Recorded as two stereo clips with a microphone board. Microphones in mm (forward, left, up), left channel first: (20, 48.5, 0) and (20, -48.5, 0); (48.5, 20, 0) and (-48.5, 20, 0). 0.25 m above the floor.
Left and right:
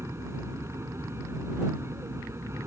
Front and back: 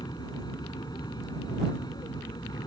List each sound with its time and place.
0.0 s an aircraft: 35° right